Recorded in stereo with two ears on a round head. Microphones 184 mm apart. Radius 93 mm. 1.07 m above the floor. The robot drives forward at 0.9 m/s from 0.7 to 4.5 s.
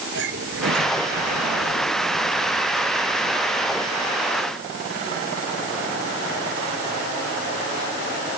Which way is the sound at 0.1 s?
55° right (ahead or behind).